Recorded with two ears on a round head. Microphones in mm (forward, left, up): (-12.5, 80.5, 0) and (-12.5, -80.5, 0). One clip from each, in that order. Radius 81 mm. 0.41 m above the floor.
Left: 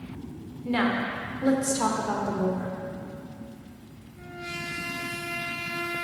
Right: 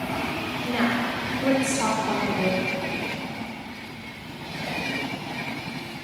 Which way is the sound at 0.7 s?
15° left (ahead or behind).